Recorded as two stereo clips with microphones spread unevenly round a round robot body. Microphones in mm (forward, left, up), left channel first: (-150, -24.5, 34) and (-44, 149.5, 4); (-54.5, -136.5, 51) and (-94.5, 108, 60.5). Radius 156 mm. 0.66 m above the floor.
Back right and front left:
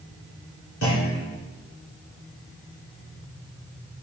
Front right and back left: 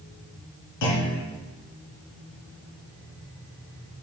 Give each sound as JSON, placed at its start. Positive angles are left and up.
{"t": 0.8, "sound": "a clunk", "azimuth_deg": -65, "distance_m": 2.5}